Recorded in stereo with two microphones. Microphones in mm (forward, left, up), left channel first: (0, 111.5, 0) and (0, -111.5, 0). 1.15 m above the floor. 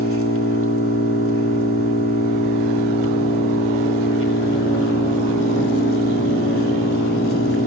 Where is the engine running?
75° left (ahead or behind), 3 m.